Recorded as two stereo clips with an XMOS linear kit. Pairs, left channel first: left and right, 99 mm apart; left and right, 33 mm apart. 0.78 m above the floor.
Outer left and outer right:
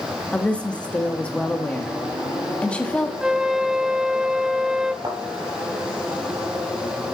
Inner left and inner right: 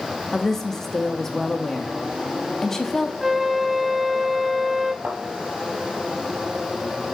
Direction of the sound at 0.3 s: 10° left (ahead or behind).